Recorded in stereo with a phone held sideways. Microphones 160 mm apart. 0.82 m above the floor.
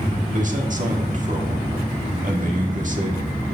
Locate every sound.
0.3 s a man speaking: 55° right (ahead or behind), 1.6 m